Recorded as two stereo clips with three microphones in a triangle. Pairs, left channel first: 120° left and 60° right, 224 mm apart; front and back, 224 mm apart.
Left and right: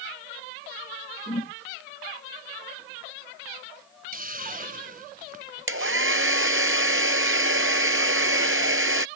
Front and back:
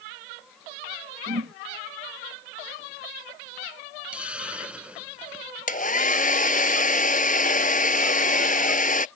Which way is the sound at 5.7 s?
50° right.